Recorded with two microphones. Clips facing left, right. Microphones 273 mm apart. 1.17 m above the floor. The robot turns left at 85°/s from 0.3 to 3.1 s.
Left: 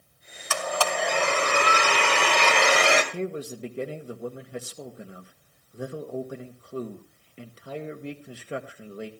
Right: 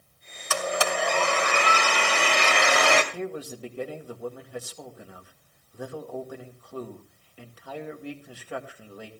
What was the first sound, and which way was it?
A blender, 135° right.